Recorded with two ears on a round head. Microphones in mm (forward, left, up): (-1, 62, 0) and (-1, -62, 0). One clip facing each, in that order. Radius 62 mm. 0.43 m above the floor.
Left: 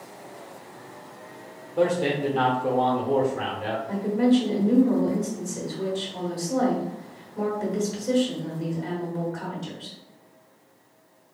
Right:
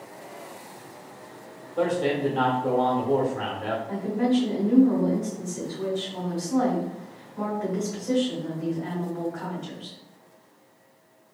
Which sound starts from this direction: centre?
A man speaking, at 1.8 s.